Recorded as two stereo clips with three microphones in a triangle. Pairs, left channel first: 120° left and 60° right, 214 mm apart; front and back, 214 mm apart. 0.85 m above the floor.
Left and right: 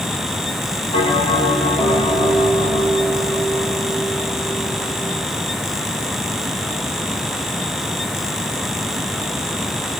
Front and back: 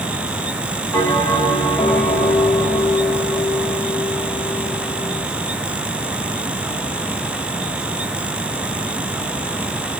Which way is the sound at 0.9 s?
75° left.